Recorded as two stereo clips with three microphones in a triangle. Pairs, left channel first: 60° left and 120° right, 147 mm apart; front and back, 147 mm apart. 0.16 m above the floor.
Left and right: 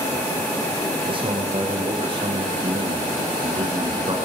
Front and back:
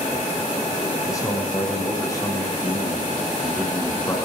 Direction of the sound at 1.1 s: 65° right.